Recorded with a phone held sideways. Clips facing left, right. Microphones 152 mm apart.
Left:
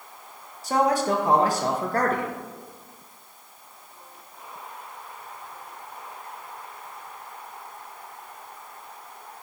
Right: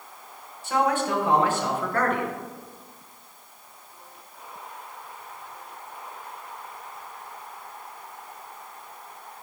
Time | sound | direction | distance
0.6 | a man speaking | 35° left (ahead or behind) | 1.2 m